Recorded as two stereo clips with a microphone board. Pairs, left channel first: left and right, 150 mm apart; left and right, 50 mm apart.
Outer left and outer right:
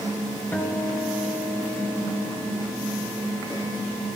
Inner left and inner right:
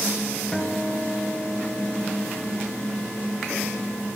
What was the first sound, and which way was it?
A guitar, 10° left (ahead or behind).